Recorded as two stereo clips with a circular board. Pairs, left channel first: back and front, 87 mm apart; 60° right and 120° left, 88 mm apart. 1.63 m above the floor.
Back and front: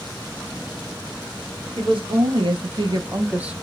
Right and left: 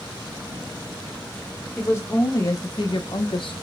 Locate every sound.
1.8 s a woman speaking: 5° left, 1.1 m; by 3.5 s 80° right, 0.6 m